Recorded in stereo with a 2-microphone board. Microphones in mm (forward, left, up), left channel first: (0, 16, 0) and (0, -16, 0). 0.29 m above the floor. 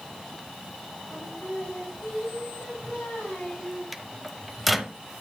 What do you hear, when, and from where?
1.1 s singing: 80° left, 6.5 m
3.9 s a microwave: centre (ahead or behind), 0.8 m